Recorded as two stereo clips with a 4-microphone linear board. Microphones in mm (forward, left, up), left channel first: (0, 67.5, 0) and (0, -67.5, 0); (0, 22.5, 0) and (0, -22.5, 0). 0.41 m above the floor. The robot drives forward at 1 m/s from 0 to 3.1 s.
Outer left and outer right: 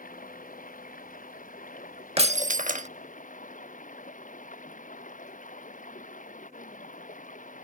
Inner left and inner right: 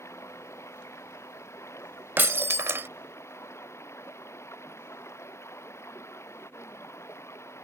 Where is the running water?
85° left; by 7.6 s 70° left (ahead or behind).